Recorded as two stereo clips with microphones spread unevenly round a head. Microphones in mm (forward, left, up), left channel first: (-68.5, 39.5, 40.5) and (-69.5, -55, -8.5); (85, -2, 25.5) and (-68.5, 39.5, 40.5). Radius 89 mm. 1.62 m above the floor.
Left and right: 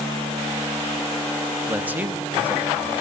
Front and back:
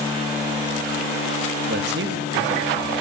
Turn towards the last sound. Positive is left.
turn(degrees=-165)